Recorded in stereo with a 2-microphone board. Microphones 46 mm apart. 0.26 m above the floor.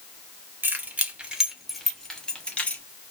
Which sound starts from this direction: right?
Keys jangling, at 0.6 s.